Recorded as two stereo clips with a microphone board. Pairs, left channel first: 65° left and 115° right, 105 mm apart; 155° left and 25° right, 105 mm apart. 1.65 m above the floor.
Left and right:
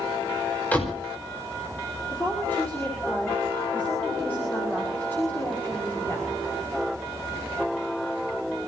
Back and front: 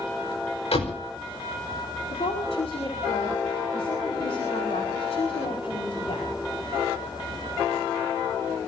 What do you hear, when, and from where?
0.7 s a door slam: 140° left, 4.5 m
2.1 s a woman speaking: 140° left, 6 m